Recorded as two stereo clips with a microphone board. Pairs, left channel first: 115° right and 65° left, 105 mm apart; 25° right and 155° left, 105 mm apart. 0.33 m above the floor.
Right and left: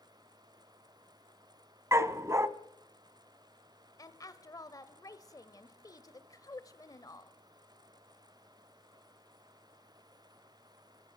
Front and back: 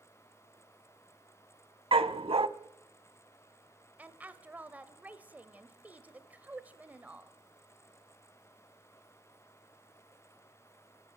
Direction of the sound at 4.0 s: 135° right.